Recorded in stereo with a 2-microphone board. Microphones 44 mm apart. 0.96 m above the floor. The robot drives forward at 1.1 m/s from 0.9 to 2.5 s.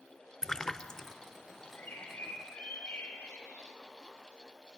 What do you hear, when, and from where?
0.4 s a splash: 15° left (ahead or behind), 0.6 m; by 1.1 s 10° left (ahead or behind), 0.7 m
1.8 s a bird: 55° left (ahead or behind), 6.5 m; by 3.7 s 50° left (ahead or behind), 7 m